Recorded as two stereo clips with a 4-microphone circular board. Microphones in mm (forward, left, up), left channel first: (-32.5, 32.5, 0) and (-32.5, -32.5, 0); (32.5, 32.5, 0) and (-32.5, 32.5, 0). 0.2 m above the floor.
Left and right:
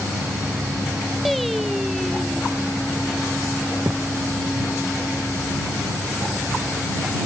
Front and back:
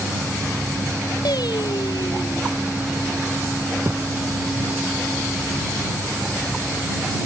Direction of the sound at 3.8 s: 140° right.